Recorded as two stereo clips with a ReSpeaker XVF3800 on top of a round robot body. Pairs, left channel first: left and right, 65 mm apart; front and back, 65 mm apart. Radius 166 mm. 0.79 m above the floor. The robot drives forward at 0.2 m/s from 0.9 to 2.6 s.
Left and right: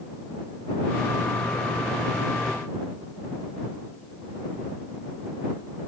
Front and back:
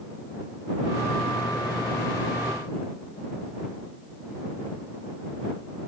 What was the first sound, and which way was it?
Only background noise.